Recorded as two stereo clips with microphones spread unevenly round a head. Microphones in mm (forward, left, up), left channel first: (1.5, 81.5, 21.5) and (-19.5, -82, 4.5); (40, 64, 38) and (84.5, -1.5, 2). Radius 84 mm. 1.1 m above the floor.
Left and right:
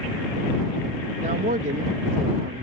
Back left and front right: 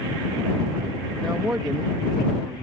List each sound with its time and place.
1.2 s a man speaking: 135° right